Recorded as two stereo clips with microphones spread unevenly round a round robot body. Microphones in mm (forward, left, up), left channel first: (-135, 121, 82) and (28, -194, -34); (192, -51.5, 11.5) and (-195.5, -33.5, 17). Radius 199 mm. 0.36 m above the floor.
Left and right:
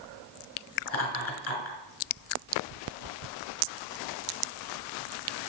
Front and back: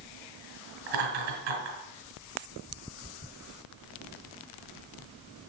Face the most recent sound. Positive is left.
turn(degrees=175)